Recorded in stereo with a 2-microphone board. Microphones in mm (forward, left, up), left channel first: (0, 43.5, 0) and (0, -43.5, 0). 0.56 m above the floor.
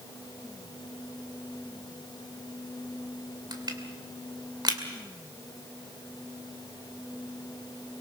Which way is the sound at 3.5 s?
55° right (ahead or behind).